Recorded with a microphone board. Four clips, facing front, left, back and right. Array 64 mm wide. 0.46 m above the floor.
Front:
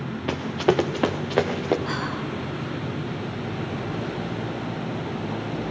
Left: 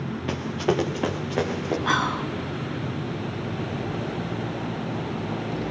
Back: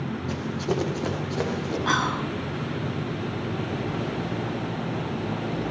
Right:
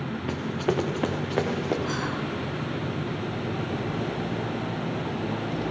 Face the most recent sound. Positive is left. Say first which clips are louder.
# left 5 dB, back 4 dB
turn(degrees=120)